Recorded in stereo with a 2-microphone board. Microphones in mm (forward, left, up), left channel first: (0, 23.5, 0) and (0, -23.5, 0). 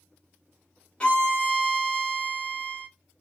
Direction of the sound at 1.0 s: 20° left (ahead or behind).